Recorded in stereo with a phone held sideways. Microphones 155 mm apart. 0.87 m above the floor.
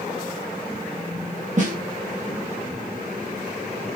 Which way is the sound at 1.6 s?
55° right (ahead or behind).